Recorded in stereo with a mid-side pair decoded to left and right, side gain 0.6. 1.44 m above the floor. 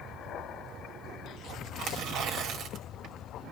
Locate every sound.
1.8 s tearing paper: 65° right, 2 m